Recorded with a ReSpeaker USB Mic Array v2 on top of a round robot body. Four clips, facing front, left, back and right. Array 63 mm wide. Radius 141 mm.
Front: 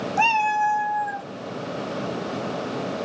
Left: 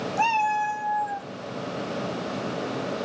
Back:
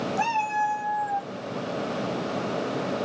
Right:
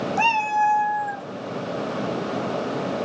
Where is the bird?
I don't hear a bird.